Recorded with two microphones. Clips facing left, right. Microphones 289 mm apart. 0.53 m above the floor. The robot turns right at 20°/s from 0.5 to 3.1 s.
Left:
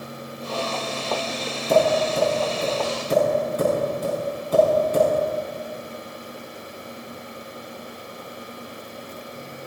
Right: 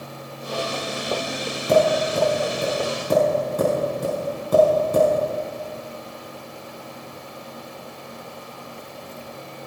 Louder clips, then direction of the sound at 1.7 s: Right 1 dB; 80° right.